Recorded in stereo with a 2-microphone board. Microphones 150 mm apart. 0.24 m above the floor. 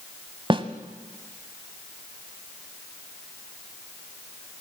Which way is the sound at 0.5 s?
40° right (ahead or behind).